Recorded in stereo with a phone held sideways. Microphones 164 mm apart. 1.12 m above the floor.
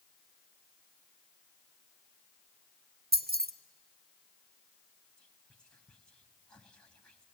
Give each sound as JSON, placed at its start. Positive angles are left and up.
{"t": 3.1, "sound": "keys jangling", "side_deg": -70, "distance_m": 0.7}
{"t": 5.2, "sound": "whispering", "side_deg": 5, "distance_m": 1.3}